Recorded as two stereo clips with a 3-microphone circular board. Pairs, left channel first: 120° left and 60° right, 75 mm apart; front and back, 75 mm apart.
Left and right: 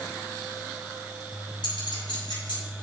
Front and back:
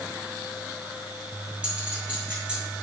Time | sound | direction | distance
1.6 | a clink | 105° left | 4.5 m